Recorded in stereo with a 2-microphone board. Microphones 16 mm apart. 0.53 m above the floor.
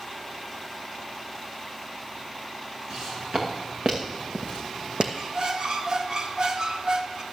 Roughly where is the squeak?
Right.